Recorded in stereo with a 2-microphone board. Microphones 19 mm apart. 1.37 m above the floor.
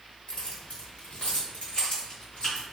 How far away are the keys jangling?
About 0.9 m.